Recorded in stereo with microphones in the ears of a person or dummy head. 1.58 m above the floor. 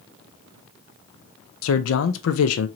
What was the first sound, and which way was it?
A man speaking, 85° left.